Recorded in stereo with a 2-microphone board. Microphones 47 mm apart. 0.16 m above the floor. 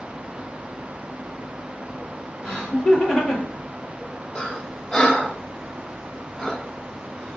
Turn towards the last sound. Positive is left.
turn(degrees=20)  # may be behind; listen again after turning